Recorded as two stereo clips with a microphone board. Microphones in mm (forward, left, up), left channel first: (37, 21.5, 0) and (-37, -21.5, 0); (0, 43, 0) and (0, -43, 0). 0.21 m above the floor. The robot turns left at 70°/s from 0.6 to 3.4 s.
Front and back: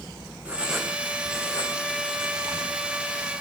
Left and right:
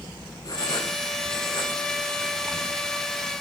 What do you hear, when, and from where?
0.5 s writing: 135° left, 4 m; by 2.8 s 20° right, 4 m